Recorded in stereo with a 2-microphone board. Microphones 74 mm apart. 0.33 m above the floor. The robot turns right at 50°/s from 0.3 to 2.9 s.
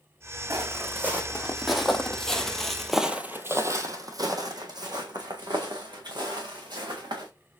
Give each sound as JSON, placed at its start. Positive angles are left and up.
{"t": 0.5, "sound": "footsteps", "side_deg": -45, "distance_m": 1.5}